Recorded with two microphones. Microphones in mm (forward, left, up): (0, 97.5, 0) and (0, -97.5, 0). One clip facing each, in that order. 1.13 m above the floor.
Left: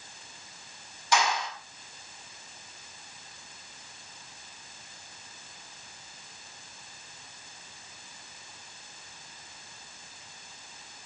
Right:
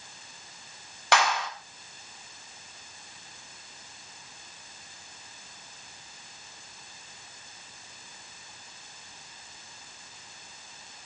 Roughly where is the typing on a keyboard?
I don't hear typing on a keyboard.